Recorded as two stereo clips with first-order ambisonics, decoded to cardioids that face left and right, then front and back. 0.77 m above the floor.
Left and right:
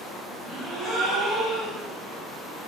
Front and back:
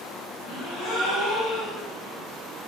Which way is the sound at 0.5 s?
30° right.